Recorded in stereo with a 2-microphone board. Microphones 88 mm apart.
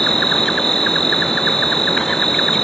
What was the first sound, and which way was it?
An insect, 5° left (ahead or behind).